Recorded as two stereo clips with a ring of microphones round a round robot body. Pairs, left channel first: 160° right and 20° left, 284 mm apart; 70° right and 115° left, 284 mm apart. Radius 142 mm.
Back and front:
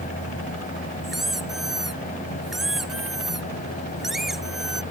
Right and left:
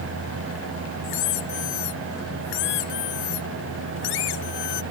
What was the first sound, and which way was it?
A squeak, 65° right.